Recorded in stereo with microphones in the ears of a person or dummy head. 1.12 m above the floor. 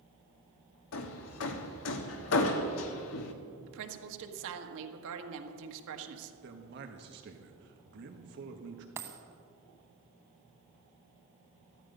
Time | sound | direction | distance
0.9 | hammering | 80° left | 1.2 m
3.7 | a woman speaking | 75° right (ahead or behind) | 1.5 m
6.4 | a man speaking | 55° right (ahead or behind) | 1.5 m
9.0 | a dropped coin | 15° right (ahead or behind) | 1.2 m